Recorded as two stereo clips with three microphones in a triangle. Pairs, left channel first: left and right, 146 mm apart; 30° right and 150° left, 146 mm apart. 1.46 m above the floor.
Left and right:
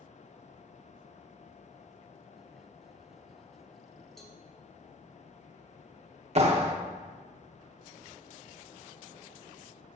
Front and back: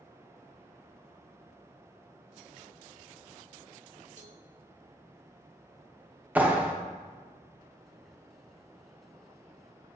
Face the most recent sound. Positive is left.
turn(degrees=-130)